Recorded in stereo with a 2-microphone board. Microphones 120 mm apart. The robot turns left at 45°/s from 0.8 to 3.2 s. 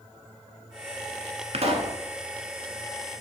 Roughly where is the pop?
Right.